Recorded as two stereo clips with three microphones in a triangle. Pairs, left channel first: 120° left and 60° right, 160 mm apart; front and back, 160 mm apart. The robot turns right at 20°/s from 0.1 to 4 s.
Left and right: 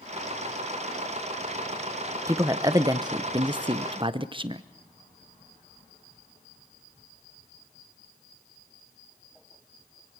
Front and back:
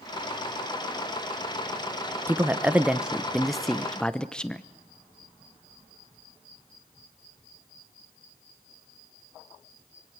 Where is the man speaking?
115° right, 0.9 m; by 4.6 s 80° right, 0.9 m.